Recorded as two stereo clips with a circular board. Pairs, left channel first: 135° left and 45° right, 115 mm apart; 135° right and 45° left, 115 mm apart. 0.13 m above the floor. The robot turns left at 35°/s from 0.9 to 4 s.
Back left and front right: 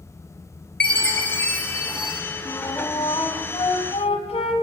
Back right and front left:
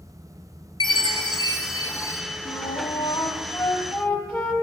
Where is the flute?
160° right, 0.8 m; by 4.5 s 150° left, 0.8 m.